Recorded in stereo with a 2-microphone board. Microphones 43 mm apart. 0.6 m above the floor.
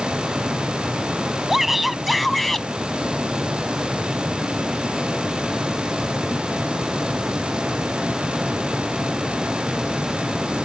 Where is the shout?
5° right (ahead or behind); by 2.7 s 10° left (ahead or behind).